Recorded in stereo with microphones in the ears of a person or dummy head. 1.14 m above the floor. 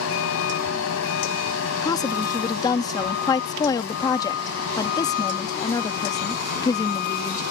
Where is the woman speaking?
20° left (ahead or behind).